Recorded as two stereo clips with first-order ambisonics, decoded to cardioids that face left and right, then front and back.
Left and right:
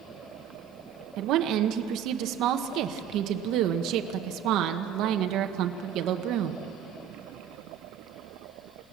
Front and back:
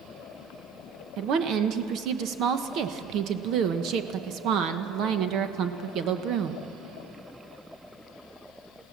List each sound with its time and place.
1.2 s a woman speaking: 130° right, 1.1 m